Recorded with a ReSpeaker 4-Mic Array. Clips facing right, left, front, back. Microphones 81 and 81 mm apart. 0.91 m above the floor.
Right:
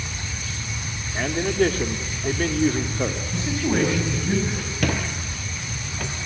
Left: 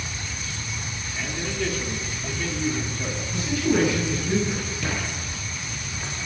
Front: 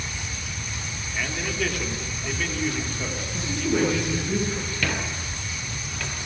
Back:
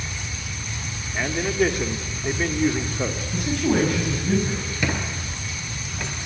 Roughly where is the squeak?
Right.